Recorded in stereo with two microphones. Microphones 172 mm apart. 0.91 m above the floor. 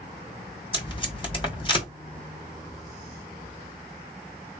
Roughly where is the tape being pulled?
Left.